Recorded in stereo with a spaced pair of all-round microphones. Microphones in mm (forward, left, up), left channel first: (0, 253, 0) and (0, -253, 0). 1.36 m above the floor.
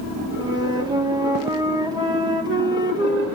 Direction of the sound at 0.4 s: 10° right (ahead or behind).